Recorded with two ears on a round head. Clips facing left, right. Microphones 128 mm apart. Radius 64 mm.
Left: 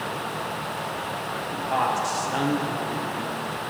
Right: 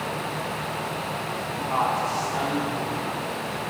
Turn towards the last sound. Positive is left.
turn(degrees=45)  # may be behind; listen again after turning